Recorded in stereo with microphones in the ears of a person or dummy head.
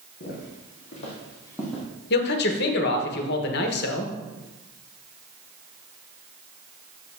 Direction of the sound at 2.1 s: 55° left (ahead or behind).